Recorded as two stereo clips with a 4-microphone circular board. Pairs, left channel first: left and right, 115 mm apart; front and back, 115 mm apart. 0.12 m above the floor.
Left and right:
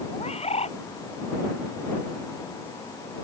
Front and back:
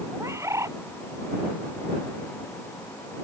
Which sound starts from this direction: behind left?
A bird, at 0.1 s.